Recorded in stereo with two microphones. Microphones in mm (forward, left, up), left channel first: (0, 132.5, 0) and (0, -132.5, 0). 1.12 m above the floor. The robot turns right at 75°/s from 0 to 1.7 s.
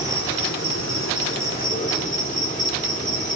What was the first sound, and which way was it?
An insect, 20° left.